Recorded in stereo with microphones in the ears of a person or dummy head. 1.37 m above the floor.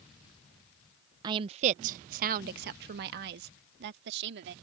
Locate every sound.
1.2 s a woman speaking: 25° right (ahead or behind); by 4.5 s 65° right (ahead or behind)